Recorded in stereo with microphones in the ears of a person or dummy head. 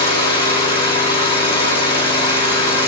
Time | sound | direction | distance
0.0 | an engine running | 30° left (ahead or behind) | 3.5 m